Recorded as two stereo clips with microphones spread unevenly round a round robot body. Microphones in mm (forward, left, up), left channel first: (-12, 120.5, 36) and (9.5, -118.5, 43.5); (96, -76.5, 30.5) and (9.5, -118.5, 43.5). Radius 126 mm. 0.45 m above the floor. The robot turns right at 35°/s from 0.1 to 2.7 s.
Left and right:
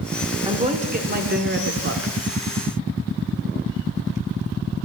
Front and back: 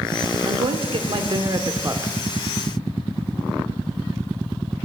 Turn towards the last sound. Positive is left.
turn(degrees=-70)